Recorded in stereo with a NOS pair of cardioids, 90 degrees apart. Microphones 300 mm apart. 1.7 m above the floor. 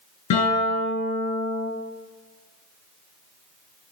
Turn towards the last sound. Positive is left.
turn(degrees=70)